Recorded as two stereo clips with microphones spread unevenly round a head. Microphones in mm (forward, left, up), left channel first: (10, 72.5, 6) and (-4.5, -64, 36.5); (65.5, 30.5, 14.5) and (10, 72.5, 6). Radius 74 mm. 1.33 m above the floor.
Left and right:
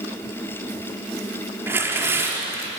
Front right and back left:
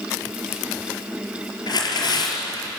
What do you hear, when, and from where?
1.7 s tearing paper: 25° right, 5.5 m